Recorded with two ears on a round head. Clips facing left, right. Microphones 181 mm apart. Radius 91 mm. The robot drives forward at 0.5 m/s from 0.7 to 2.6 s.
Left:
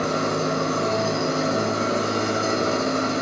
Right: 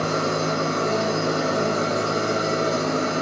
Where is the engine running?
40° left (ahead or behind), 2 m; by 3.2 s 65° left (ahead or behind), 1.5 m.